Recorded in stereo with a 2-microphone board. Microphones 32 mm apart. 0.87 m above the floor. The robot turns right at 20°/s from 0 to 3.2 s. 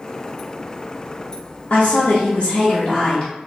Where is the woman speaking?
110° left, 0.7 m; by 3.3 s 140° left, 0.7 m.